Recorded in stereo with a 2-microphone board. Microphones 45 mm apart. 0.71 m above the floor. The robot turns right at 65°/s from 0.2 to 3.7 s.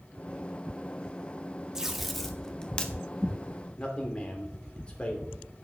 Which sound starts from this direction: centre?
Tape being pulled, at 1.8 s.